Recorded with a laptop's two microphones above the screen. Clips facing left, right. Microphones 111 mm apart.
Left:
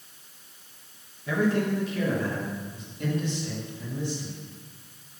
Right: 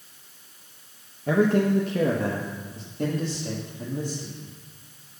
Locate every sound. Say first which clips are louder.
1.3 s a man speaking: right 4 dB; 50° right (ahead or behind), 1.1 m; by 4.4 s 65° right (ahead or behind), 3 m